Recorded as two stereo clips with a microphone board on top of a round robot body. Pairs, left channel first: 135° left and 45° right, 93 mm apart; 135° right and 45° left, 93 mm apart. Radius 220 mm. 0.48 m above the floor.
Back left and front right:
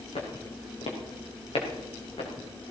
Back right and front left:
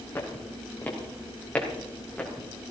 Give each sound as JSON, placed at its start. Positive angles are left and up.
{"t": 0.1, "sound": "footsteps", "azimuth_deg": 155, "distance_m": 3.0}